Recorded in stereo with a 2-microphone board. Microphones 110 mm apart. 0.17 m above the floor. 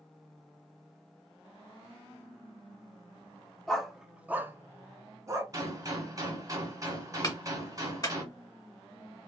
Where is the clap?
35° left (ahead or behind), 1.7 m.